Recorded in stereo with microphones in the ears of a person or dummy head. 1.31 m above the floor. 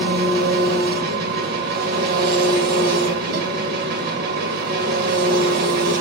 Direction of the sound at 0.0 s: 55° right (ahead or behind).